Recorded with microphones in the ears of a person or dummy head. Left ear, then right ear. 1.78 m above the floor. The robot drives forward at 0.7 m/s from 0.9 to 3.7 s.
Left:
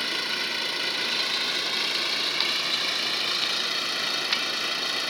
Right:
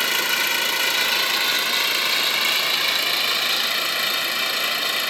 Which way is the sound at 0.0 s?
30° right (ahead or behind).